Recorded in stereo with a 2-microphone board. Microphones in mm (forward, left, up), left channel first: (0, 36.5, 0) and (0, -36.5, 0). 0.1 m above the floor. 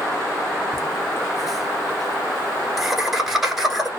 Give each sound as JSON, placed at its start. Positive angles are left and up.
{"t": 0.7, "sound": "laughter", "side_deg": 0, "distance_m": 1.6}